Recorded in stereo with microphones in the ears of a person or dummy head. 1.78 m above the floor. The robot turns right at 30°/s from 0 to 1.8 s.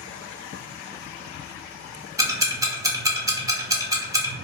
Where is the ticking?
20° right (ahead or behind), 0.7 m.